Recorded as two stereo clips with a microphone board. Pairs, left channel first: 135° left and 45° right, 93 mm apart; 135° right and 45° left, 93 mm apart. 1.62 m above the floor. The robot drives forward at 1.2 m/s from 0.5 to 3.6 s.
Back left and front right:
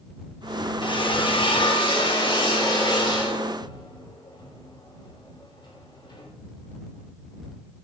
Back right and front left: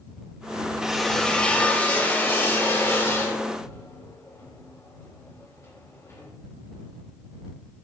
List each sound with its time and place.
0.8 s a drill: 130° left, 1.3 m; by 6.3 s 170° left, 4 m